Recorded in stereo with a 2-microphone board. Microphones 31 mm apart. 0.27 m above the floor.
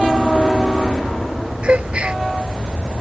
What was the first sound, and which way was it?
A gasp, 40° right (ahead or behind).